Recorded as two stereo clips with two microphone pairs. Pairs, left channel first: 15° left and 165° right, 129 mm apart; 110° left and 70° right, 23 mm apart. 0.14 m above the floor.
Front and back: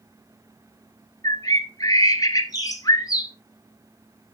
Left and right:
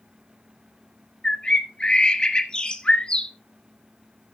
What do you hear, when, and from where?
1.2 s a bird: 70° left, 1.5 m